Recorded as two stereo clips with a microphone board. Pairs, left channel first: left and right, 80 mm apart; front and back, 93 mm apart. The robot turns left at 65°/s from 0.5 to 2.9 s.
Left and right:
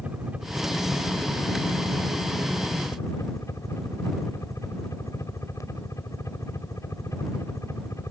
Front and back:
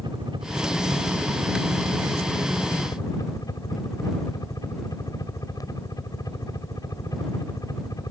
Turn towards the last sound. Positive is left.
turn(degrees=45)